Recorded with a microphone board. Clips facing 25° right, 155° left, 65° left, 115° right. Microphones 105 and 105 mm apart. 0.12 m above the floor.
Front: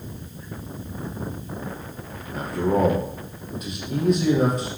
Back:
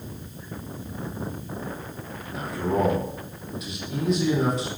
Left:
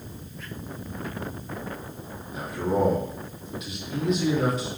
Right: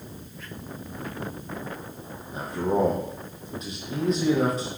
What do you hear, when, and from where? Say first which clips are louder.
2.3 s a man speaking: front 3 dB, right 1 dB; 60° right, 5 m